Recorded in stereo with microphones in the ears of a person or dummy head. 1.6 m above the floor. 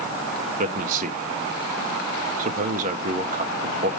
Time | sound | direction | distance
0.6 | a man speaking | 45° right (ahead or behind) | 1.3 m